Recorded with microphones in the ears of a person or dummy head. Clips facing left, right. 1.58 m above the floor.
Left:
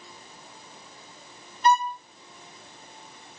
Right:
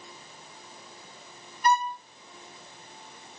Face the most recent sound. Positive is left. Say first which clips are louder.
# left 3 dB
turn(degrees=20)  # may be behind; listen again after turning